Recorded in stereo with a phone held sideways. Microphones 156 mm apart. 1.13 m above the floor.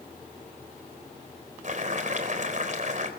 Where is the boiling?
50° right (ahead or behind), 3.5 m.